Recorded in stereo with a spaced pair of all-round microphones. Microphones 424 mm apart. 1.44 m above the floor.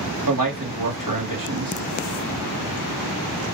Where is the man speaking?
50° right (ahead or behind), 1.9 m.